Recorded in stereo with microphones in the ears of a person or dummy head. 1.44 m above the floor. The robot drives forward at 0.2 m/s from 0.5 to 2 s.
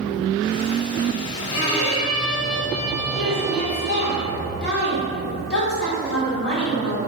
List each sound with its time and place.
1.5 s a violin: 85° left, 1.0 m
3.2 s a woman speaking: 65° left (ahead or behind), 1.2 m